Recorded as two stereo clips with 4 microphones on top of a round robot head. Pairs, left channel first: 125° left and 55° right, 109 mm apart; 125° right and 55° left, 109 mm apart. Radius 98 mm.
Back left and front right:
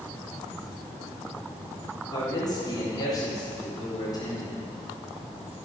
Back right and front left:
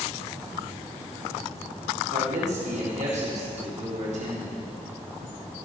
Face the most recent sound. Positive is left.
turn(degrees=70)